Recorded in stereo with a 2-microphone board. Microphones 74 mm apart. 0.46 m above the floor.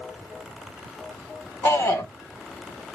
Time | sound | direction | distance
1.6 | a shout | 30° left (ahead or behind) | 1.3 m